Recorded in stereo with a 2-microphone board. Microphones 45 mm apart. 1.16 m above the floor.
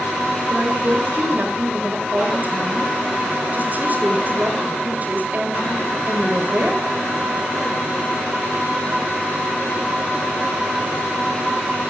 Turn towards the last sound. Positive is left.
turn(degrees=-35)  # may be behind; listen again after turning